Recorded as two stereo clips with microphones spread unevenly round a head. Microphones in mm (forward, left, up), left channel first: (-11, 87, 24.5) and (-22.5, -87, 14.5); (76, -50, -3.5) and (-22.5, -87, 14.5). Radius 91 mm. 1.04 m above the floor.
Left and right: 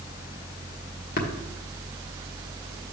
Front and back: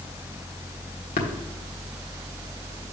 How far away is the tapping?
About 1.3 m.